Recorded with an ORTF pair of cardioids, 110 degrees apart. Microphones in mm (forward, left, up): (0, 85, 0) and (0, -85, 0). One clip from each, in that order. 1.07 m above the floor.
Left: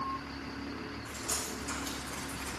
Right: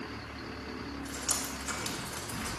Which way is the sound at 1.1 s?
50° right.